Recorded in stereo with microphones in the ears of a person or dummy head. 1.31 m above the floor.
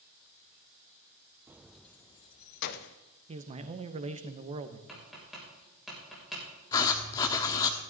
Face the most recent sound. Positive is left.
turn(degrees=20)  # may be behind; listen again after turning